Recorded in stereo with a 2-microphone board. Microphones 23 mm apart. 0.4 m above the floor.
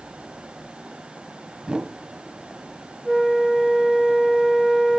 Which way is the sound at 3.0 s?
5° left (ahead or behind).